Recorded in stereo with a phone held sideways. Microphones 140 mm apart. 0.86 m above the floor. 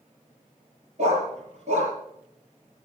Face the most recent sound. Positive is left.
turn(degrees=-50)  # may be behind; listen again after turning